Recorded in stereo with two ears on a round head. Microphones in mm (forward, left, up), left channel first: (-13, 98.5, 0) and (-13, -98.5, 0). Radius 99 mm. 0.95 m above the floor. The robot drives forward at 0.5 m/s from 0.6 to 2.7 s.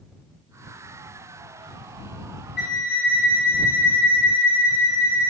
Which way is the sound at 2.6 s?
50° left (ahead or behind).